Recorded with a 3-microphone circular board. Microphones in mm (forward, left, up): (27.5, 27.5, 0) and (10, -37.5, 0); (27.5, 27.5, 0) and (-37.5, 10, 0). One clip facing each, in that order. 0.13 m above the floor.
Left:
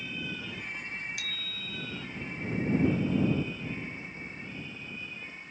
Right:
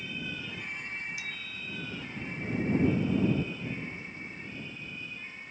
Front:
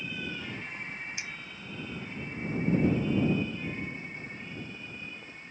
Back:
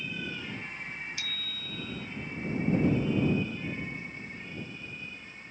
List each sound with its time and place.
1.2 s a bicycle bell: 85° left